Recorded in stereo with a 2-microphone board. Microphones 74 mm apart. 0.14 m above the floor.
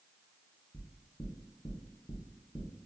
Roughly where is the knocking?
Left.